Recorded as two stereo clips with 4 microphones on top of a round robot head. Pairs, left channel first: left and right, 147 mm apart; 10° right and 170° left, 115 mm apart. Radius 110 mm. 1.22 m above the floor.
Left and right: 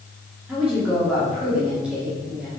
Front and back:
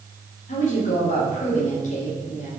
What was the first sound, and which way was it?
A woman speaking, 5° right.